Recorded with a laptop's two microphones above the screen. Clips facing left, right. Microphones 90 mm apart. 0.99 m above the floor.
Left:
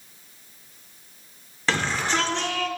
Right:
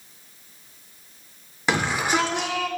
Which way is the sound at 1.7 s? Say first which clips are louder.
Right 2 dB; 15° right (ahead or behind).